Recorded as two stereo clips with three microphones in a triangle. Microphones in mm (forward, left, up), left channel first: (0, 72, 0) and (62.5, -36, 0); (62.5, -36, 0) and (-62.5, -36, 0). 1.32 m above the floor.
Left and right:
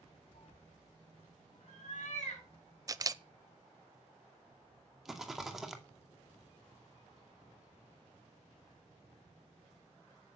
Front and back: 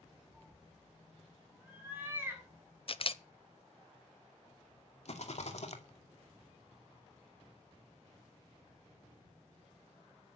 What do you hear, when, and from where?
0.3 s a cat meowing: 100° left, 6 m; by 2.5 s 110° left, 6 m
2.9 s a camera shutter: 10° right, 0.6 m
5.0 s a rattle: 30° left, 2.5 m